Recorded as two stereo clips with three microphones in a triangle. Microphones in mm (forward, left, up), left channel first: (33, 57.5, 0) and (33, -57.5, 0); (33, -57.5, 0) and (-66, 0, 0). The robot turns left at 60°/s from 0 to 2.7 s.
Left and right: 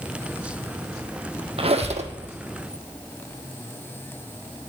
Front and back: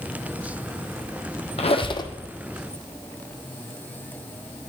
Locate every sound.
1.6 s a squeak: 55° right, 0.7 m; by 2.1 s 85° right, 0.7 m